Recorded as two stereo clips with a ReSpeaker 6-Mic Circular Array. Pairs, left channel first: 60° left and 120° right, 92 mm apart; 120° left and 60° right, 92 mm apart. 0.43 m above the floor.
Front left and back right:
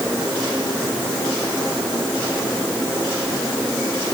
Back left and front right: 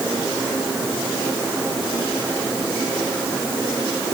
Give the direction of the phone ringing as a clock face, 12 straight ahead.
I don't hear a phone ringing.